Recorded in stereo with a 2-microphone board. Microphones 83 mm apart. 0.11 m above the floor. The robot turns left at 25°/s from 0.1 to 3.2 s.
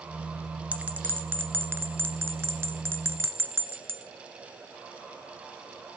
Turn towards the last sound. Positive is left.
turn(degrees=-25)  # may be behind; listen again after turning